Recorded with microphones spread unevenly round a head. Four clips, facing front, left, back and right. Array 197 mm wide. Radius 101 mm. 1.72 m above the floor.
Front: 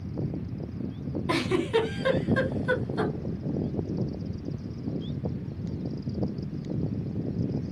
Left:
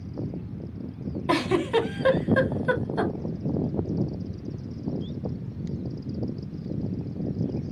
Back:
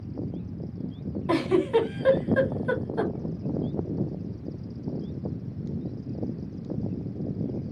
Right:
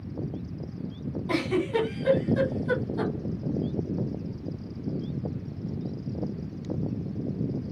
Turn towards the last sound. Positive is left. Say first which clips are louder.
# left 3 dB, back 4 dB
turn(degrees=95)